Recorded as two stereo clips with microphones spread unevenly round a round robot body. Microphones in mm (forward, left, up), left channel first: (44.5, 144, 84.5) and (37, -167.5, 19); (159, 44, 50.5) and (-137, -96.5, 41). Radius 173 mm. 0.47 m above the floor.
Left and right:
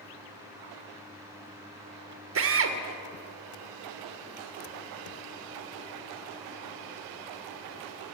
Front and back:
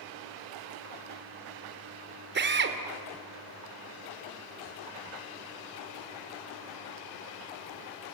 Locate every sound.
2.4 s a drill: 105° right, 1.6 m